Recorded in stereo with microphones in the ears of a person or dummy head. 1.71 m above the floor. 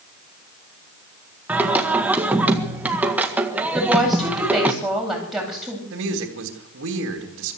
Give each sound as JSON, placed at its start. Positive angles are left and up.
{"t": 1.5, "sound": "singing", "side_deg": -10, "distance_m": 1.7}
{"t": 3.7, "sound": "a woman speaking", "side_deg": 0, "distance_m": 8.0}
{"t": 5.9, "sound": "a woman speaking", "side_deg": -80, "distance_m": 3.0}